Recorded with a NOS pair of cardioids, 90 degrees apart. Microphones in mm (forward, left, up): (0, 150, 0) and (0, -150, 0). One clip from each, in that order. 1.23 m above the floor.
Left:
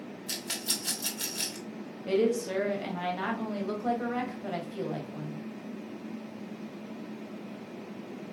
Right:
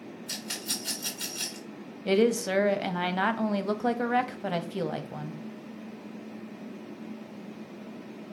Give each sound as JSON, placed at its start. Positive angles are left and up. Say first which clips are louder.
{"t": 0.3, "sound": "a rattle", "louder": "left 1 dB", "azimuth_deg": 35, "distance_m": 1.3}
{"t": 2.0, "sound": "a woman speaking", "louder": "right 3 dB", "azimuth_deg": -40, "distance_m": 0.6}